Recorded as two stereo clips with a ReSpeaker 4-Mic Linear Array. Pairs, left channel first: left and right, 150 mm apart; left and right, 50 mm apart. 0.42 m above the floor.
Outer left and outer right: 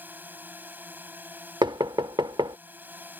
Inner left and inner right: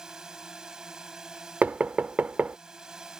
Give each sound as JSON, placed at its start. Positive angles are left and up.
{"t": 0.0, "sound": "a drone", "side_deg": -10}
{"t": 1.6, "sound": "knocking", "side_deg": -30}